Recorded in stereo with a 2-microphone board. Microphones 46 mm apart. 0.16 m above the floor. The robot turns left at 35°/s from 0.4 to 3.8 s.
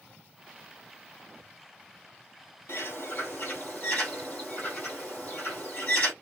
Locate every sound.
2.7 s a bird: 75° left, 4 m; by 6.1 s 35° left, 4 m